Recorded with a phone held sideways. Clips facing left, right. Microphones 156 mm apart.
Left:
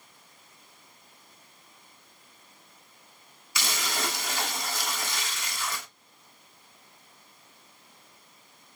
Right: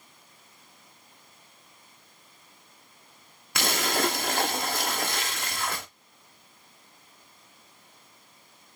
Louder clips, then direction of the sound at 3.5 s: Right 6 dB; 55° right (ahead or behind).